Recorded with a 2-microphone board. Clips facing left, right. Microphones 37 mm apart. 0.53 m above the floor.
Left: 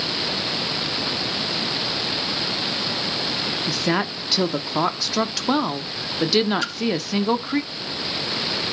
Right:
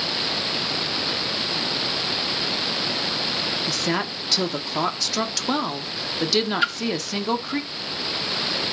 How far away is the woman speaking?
About 0.9 m.